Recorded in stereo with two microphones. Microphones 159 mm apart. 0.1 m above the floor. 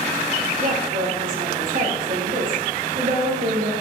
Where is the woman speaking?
60° right (ahead or behind), 3 m.